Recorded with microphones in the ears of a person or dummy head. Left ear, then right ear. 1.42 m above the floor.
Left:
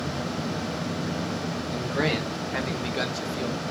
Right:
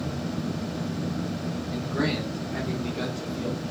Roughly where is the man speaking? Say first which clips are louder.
Left 2 dB; centre.